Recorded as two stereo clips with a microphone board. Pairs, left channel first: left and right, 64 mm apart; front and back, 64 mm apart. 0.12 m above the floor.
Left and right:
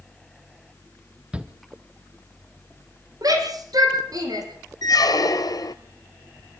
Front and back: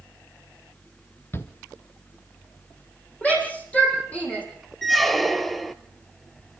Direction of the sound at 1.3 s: 25° right.